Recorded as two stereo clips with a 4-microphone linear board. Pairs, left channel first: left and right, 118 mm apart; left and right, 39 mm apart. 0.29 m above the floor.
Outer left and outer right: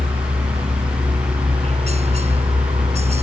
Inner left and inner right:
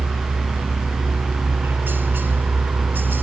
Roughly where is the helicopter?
Right.